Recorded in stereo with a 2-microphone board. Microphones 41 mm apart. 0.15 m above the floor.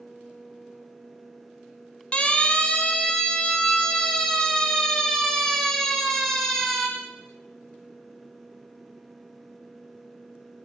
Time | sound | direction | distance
2.1 | a siren | 25° left (ahead or behind) | 5.5 m